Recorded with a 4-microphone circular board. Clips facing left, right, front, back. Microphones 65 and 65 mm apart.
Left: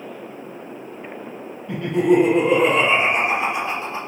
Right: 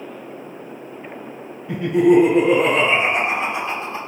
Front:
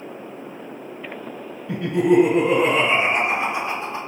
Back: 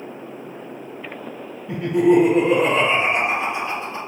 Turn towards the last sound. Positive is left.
turn(degrees=30)